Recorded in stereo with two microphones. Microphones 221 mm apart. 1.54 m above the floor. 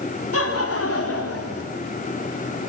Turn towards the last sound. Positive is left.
turn(degrees=85)